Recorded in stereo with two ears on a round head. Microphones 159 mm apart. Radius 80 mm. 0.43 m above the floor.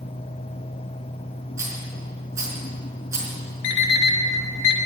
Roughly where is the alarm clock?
Left.